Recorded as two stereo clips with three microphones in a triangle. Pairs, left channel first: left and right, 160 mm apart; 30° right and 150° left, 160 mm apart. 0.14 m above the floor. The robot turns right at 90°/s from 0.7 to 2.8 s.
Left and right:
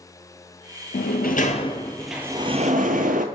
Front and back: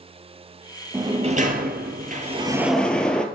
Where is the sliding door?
80° left, 0.7 m; by 3.2 s 115° right, 0.7 m.